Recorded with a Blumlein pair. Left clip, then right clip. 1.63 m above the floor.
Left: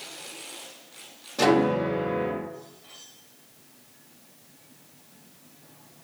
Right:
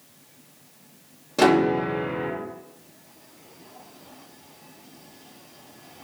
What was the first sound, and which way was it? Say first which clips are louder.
A piano: right 2 dB; 65° right.